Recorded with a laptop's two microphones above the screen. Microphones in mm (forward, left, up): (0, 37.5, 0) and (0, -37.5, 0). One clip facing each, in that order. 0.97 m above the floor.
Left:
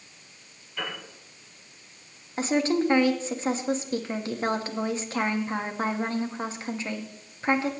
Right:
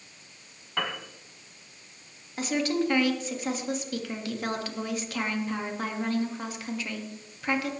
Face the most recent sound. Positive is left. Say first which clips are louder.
# left 3 dB
turn(degrees=30)  # may be behind; listen again after turning